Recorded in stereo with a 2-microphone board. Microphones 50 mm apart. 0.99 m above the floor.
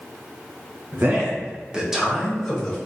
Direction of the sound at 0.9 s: 45° right (ahead or behind).